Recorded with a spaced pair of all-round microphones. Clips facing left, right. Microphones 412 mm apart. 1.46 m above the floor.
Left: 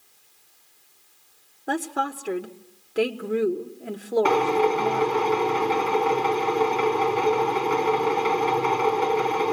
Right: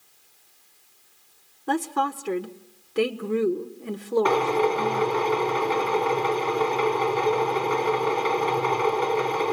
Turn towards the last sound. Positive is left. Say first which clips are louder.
# left 1 dB
turn(degrees=40)  # may be behind; listen again after turning